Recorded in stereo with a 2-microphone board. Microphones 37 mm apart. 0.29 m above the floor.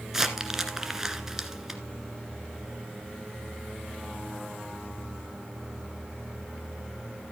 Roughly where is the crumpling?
Centre.